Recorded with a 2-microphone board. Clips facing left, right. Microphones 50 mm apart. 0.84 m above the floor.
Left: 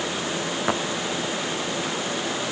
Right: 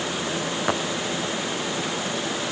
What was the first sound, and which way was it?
Only background noise.